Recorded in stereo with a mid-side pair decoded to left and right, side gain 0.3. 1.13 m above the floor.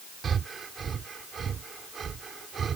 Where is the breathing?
65° right.